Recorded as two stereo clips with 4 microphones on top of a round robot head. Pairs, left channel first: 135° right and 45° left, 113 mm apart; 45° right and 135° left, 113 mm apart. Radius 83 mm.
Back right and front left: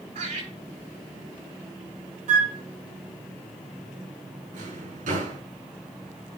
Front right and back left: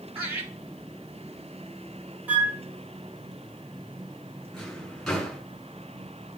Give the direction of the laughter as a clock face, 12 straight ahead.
10 o'clock.